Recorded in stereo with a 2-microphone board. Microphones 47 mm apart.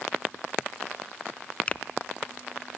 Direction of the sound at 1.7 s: 30° left (ahead or behind).